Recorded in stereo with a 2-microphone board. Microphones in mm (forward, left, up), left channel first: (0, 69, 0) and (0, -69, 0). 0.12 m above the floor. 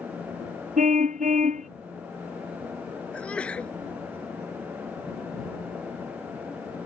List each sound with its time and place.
0.8 s a car horn: 65° right (ahead or behind)
3.1 s a sneeze: 10° left (ahead or behind)